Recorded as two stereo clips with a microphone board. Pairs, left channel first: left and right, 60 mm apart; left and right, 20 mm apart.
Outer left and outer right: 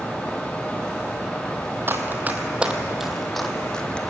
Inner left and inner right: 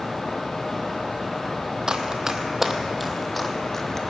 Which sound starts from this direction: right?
Running footsteps, at 1.9 s.